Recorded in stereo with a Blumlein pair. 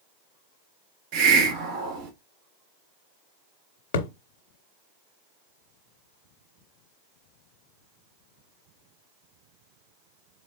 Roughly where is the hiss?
Ahead right.